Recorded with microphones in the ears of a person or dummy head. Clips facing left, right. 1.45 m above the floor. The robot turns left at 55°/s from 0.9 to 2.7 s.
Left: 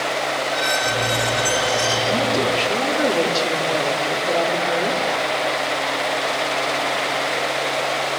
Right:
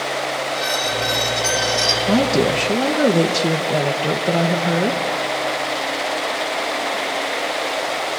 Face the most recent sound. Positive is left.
turn(degrees=-130)